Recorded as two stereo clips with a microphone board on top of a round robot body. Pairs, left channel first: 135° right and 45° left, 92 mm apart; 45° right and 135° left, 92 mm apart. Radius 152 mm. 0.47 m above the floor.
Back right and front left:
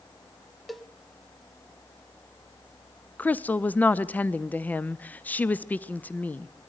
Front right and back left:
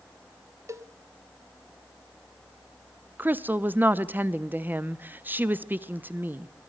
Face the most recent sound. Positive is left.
turn(degrees=175)